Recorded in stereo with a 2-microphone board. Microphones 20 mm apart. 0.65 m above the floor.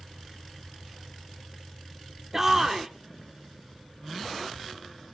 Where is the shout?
20° right (ahead or behind), 1.2 m.